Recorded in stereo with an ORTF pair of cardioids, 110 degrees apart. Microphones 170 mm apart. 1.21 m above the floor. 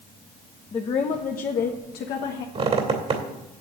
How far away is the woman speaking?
About 1.0 m.